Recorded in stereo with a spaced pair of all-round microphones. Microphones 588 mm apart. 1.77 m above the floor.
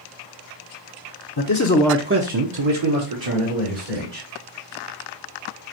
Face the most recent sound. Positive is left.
turn(degrees=-80)